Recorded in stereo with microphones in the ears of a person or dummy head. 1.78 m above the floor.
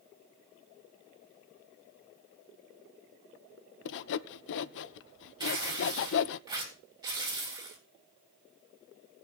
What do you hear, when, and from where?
3.9 s sawing: 65° left (ahead or behind), 0.5 m
5.4 s tearing paper: 15° right (ahead or behind), 3 m